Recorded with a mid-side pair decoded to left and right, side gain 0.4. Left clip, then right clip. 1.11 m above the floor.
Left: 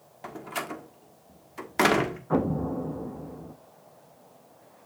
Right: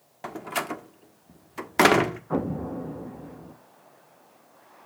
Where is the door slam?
40° right, 1.4 m.